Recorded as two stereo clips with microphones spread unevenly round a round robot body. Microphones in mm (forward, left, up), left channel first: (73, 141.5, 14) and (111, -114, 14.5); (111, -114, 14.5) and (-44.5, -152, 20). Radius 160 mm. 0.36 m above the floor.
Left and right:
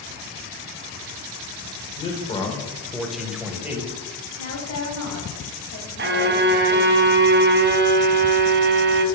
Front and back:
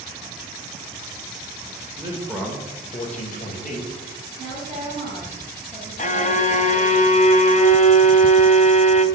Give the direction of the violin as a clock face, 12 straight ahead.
1 o'clock.